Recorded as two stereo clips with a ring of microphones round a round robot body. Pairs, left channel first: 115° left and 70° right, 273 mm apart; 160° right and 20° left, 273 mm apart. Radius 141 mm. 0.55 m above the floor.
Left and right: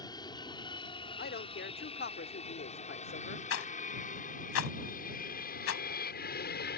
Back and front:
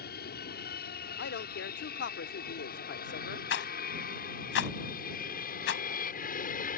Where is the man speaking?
160° left.